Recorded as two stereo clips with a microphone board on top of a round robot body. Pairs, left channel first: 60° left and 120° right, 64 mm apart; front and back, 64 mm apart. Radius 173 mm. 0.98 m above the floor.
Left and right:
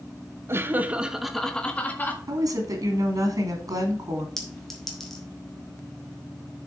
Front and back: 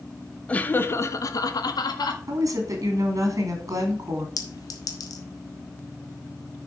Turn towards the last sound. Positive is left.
turn(degrees=-30)